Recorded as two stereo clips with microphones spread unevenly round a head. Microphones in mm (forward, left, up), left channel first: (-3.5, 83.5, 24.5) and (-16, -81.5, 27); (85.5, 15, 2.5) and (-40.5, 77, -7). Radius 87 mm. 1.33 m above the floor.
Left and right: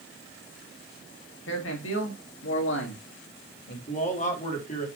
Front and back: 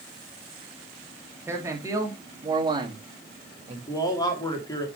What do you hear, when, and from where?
1.5 s a man speaking: 80° left, 3 m; by 3.8 s 110° left, 2.5 m
3.9 s a man speaking: 35° left, 3.5 m